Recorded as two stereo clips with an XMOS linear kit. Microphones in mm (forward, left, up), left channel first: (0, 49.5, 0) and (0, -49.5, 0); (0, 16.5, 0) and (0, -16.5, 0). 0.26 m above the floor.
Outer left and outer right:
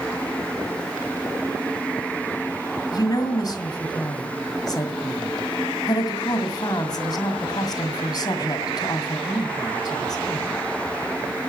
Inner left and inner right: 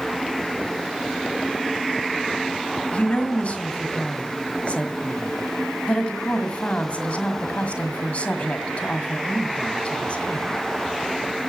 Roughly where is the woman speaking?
Left.